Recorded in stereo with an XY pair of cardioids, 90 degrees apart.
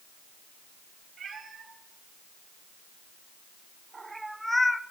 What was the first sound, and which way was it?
A cat meowing, 55° right.